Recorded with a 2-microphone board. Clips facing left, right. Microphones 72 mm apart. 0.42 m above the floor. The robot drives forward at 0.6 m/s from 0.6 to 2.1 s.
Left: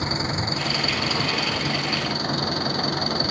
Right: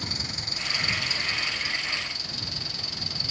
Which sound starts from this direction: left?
An engine running, at 0.0 s.